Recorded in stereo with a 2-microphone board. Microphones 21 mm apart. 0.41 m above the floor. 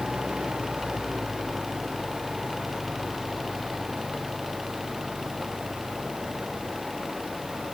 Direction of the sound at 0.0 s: 65° right (ahead or behind).